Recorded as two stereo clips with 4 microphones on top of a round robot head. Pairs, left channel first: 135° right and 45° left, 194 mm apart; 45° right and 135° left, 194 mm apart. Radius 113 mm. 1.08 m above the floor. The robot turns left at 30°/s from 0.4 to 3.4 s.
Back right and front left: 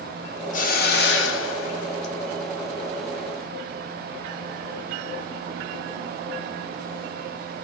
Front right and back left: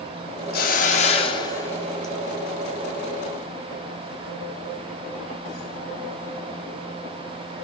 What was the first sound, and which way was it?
A hiss, 85° right.